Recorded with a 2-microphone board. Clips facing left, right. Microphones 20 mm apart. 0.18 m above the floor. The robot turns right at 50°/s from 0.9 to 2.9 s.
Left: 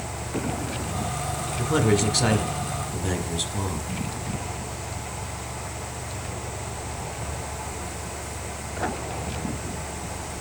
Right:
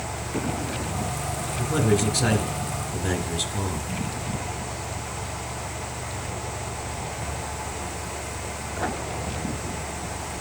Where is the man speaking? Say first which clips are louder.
Left 1 dB; 100° left, 1.6 m; by 3.9 s 165° left, 1.6 m.